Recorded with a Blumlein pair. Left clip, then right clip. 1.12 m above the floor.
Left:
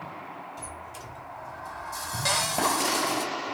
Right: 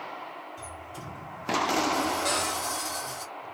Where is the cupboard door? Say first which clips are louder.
Left 3 dB; 70° left, 1.5 m.